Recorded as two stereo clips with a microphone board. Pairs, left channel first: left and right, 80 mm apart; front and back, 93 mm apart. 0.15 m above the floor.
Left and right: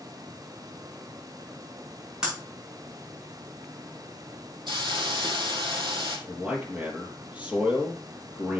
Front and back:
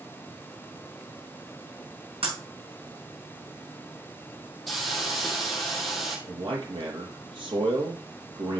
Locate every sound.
2.2 s breaking glass: 170° right, 7 m
4.7 s a hiss: 90° right, 3 m
6.3 s a man speaking: 165° right, 4.5 m